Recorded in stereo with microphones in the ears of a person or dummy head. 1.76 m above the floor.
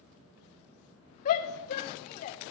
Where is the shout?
40° left (ahead or behind), 0.8 m.